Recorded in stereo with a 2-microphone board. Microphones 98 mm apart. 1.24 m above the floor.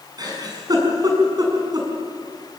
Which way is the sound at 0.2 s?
40° right (ahead or behind).